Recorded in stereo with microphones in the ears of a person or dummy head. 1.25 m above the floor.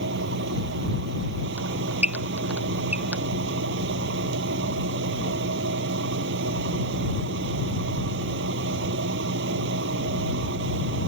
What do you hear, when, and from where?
0.0 s a fan: 75° right (ahead or behind)
1.6 s a squeak: 5° right (ahead or behind)